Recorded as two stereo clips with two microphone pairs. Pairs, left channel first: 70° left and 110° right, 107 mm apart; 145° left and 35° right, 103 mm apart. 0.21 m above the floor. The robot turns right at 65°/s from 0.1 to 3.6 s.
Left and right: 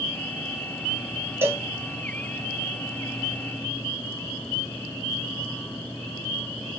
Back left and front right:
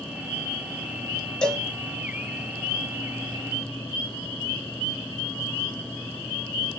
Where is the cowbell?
145° right, 0.6 m; by 1.7 s 125° right, 0.6 m.